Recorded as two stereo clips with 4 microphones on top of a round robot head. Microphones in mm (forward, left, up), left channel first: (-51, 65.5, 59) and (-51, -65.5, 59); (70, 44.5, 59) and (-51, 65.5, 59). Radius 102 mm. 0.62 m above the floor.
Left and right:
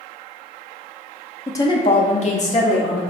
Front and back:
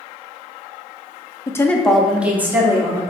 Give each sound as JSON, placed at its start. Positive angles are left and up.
{"t": 1.5, "sound": "a woman speaking", "azimuth_deg": 35, "distance_m": 0.7}